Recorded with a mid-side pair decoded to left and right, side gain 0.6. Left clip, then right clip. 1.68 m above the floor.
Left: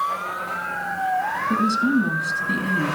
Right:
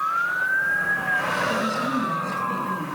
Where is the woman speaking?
60° left, 3.5 m.